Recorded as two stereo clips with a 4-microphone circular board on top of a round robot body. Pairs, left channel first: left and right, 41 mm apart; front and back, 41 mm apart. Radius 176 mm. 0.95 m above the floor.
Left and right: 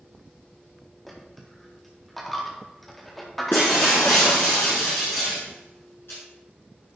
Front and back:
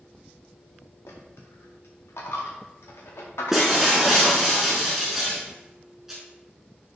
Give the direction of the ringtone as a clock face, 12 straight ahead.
I don't hear a ringtone.